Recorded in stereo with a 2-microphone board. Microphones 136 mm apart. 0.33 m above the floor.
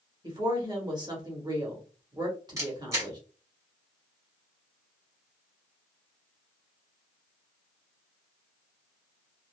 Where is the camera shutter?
25° right (ahead or behind), 1.7 m.